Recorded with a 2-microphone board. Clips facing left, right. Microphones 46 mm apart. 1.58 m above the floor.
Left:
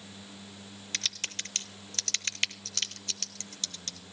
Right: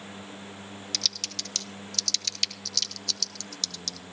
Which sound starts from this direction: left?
Typing on a keyboard, at 0.9 s.